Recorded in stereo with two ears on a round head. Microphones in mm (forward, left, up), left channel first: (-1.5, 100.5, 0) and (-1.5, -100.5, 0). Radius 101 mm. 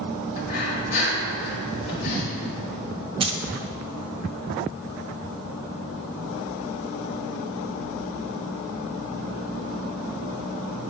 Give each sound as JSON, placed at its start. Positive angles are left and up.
{"t": 0.4, "sound": "breathing", "side_deg": 40, "distance_m": 1.5}
{"t": 3.2, "sound": "keys jangling", "side_deg": -25, "distance_m": 0.6}